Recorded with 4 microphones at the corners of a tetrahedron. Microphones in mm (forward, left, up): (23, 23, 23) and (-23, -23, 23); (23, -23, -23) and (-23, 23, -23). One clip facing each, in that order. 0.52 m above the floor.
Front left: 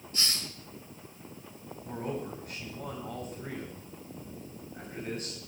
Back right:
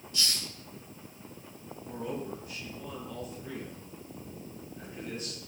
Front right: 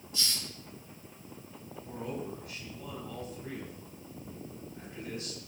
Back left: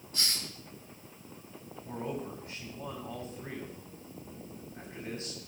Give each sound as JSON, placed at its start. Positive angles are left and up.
{"t": 0.1, "sound": "a hiss", "azimuth_deg": 95, "distance_m": 1.7}
{"t": 1.9, "sound": "a man speaking", "azimuth_deg": 80, "distance_m": 9.0}